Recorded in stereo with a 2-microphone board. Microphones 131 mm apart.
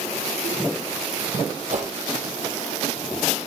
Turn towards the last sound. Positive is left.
turn(degrees=-65)  # may be behind; listen again after turning